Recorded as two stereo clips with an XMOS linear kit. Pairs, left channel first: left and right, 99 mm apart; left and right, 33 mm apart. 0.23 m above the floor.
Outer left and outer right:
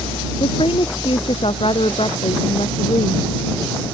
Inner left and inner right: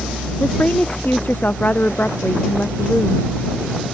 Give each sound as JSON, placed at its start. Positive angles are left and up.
{"t": 0.4, "sound": "a woman speaking", "side_deg": 70}